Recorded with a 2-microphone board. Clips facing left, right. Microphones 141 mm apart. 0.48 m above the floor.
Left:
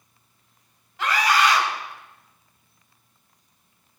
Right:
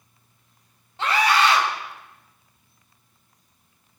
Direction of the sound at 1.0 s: 30° right (ahead or behind).